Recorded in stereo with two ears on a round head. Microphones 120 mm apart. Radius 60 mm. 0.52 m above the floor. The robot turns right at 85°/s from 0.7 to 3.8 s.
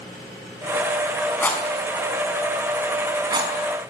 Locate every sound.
1.4 s a rattle: 15° left (ahead or behind), 4.5 m; by 3.5 s 20° right (ahead or behind), 4.5 m